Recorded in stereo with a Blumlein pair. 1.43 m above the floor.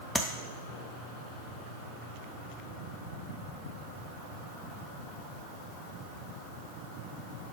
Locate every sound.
0.1 s tapping: straight ahead, 0.6 m